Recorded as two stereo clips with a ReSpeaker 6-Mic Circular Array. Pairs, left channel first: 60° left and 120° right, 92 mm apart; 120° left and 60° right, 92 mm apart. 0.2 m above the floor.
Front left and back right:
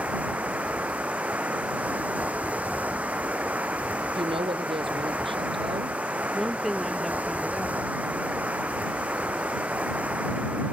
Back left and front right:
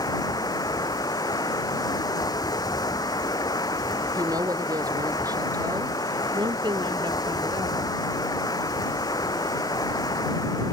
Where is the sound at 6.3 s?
30° right.